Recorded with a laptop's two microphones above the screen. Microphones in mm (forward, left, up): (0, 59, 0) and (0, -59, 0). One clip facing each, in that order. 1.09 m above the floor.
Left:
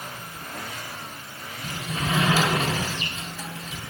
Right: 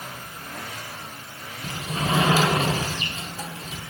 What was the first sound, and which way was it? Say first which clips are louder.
A sliding door: right 2 dB; 35° right (ahead or behind).